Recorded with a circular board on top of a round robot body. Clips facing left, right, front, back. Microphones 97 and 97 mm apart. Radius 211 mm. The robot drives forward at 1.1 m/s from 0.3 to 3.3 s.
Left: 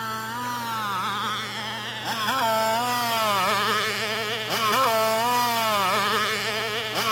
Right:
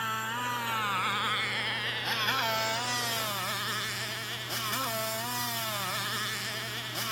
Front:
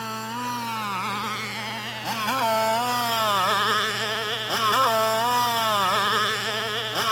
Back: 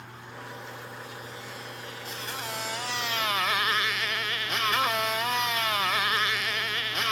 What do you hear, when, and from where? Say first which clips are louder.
0.0 s a motorcycle: left 4 dB, front 13 dB; 20° left; by 7.1 s 60° left